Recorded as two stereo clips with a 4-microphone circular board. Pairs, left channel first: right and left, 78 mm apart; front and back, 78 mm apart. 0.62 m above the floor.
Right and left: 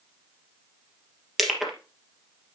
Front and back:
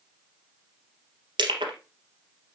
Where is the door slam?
I don't hear a door slam.